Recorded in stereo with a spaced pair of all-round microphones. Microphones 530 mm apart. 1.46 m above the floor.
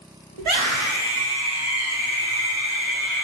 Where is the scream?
70° right (ahead or behind), 0.9 m; by 3.2 s 35° right (ahead or behind), 2.5 m.